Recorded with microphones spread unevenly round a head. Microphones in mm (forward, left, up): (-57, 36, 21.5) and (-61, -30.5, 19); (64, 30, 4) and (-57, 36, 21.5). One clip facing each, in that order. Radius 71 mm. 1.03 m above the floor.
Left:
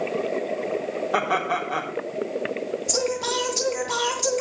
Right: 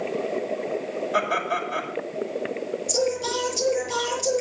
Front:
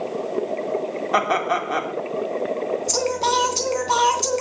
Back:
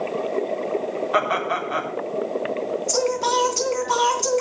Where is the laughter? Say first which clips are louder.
Left 1 dB, front 3 dB; 35° left, 3.5 m.